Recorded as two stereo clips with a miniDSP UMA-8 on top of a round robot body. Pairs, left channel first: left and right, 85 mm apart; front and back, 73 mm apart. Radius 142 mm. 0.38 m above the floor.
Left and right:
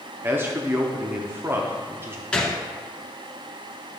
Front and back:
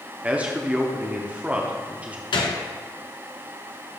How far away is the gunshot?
About 1.1 m.